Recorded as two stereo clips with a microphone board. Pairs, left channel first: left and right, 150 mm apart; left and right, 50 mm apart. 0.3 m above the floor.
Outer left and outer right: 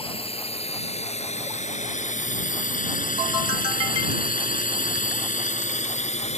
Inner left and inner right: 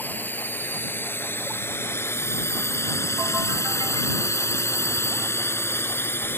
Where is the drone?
40° left (ahead or behind); by 6.4 s 50° left (ahead or behind).